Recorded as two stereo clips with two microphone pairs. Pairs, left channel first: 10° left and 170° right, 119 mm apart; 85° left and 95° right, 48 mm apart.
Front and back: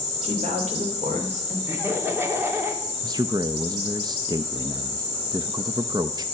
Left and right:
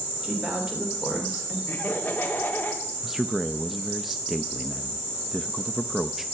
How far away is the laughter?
About 2.5 m.